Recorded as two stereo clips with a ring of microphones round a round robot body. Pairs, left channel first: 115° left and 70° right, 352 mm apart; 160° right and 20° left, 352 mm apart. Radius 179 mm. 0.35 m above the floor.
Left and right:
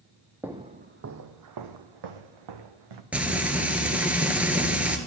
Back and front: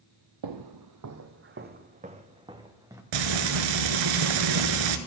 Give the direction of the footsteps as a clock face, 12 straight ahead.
11 o'clock.